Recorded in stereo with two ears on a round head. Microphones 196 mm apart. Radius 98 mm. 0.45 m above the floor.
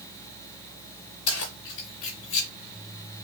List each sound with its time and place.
1.3 s keys jangling: 75° left (ahead or behind), 6.5 m; by 2.5 s 65° left (ahead or behind), 5.5 m